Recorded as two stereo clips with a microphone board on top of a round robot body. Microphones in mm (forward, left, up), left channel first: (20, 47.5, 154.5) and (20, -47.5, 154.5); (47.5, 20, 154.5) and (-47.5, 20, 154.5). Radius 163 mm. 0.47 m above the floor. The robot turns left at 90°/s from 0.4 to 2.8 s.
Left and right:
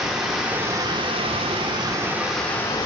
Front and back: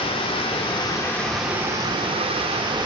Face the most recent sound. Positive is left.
turn(degrees=140)